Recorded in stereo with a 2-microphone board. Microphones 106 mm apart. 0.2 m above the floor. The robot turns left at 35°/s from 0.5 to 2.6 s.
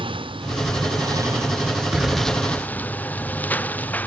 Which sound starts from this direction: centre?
An explosion, at 1.9 s.